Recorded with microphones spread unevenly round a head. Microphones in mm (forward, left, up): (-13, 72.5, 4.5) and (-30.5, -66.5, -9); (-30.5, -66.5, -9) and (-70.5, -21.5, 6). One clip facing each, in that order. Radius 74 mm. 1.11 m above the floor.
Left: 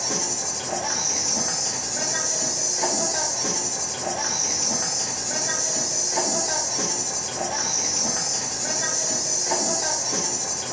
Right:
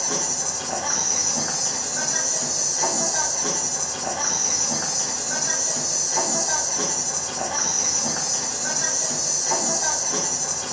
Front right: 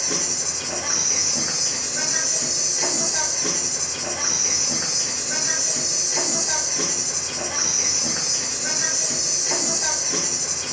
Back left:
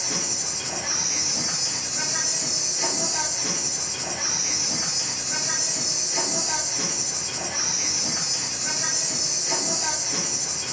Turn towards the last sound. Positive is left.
turn(degrees=30)